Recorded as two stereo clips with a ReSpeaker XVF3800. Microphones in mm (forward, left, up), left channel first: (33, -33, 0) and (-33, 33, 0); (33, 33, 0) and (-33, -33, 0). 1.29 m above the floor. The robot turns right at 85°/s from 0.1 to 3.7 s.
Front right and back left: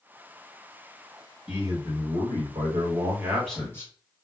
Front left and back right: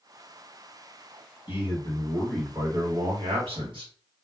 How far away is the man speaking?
About 1.1 m.